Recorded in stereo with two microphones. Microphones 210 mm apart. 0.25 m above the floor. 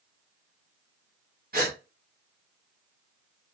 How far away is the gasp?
About 1.0 m.